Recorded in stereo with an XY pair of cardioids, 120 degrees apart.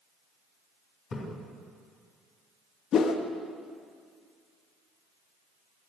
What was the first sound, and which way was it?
A splash, 50° left.